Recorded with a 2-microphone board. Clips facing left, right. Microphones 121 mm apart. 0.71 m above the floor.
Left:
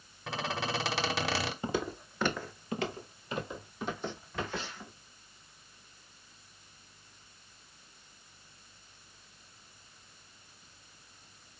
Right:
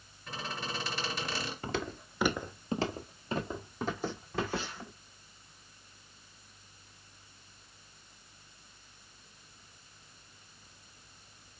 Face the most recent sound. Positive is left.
turn(degrees=-35)  # may be behind; listen again after turning